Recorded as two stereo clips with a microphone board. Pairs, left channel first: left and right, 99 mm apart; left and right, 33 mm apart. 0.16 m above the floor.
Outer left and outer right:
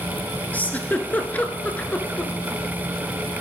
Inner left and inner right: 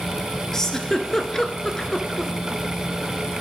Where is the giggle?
15° left (ahead or behind), 0.7 m.